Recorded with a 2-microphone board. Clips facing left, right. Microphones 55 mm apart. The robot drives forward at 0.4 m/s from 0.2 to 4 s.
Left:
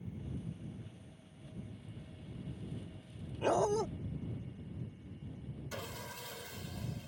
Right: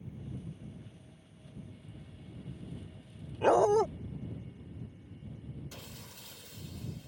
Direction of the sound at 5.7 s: 75° left (ahead or behind).